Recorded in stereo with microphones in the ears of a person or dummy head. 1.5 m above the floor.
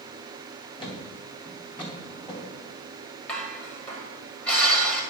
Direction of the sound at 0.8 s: 25° left (ahead or behind).